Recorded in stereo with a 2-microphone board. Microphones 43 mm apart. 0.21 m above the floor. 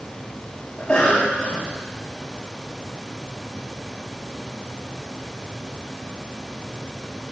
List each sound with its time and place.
0.8 s a cough: 10° left (ahead or behind), 1.6 m